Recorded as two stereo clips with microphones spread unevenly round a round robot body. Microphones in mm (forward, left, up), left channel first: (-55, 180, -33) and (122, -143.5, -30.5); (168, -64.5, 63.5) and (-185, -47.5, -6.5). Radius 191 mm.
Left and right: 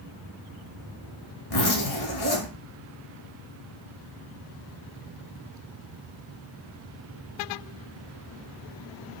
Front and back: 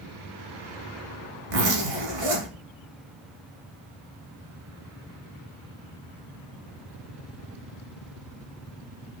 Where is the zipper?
175° left, 1.3 m.